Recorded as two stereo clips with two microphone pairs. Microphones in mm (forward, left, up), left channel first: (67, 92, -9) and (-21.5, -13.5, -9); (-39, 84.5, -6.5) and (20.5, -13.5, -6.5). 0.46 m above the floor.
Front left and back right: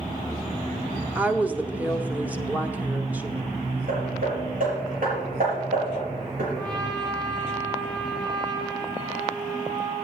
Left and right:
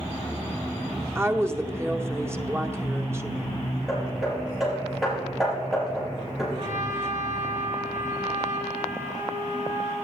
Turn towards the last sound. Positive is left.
turn(degrees=-70)